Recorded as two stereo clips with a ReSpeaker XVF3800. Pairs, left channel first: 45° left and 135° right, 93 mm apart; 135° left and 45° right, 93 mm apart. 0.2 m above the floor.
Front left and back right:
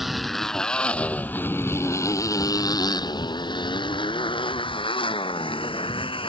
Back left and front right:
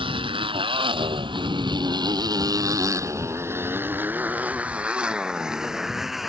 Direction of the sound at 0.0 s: 50° right.